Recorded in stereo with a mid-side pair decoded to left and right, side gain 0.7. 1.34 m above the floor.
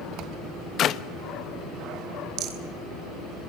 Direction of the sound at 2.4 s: 65° right.